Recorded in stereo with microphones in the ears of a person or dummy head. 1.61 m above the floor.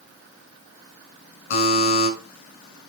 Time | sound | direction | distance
1.5 | a buzzer | 55° left (ahead or behind) | 7 m